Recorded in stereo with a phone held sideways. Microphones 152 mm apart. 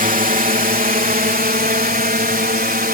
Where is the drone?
60° right (ahead or behind); by 3.0 s 75° right (ahead or behind).